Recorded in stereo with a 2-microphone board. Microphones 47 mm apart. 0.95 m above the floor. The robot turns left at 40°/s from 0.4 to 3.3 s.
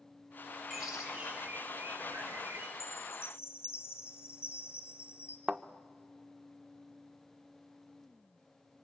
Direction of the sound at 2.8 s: 80° left.